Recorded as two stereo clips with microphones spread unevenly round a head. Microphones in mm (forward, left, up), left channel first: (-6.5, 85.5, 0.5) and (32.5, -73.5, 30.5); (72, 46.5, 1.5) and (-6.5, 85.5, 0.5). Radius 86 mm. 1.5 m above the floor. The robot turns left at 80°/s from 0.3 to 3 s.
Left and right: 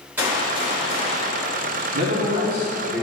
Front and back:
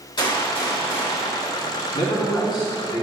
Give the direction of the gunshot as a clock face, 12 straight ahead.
12 o'clock.